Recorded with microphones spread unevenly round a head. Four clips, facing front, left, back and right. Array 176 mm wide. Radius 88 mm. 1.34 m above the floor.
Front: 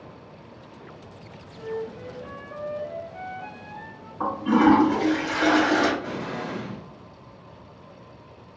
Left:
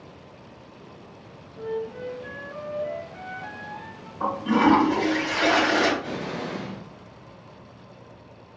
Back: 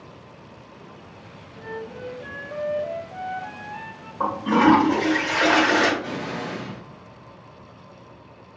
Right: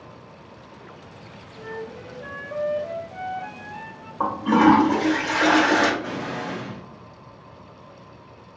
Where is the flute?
120° right, 1.9 m.